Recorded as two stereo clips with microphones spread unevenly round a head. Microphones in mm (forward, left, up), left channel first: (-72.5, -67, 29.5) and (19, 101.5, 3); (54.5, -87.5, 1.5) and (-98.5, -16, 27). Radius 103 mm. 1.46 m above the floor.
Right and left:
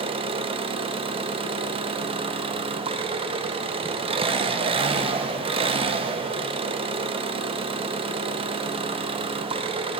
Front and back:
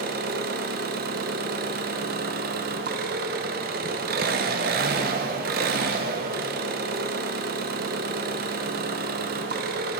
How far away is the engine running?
About 0.8 m.